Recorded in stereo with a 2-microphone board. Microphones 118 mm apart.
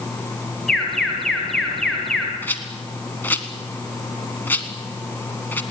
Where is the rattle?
15° left (ahead or behind), 1.6 m.